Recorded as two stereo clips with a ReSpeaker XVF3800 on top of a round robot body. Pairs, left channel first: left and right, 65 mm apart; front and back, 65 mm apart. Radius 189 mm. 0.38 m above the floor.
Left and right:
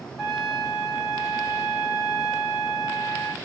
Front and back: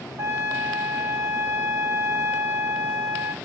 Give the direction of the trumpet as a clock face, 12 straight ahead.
6 o'clock.